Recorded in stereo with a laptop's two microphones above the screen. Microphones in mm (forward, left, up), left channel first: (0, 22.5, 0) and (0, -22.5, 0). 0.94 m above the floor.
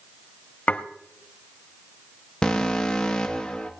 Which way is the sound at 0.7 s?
35° left (ahead or behind).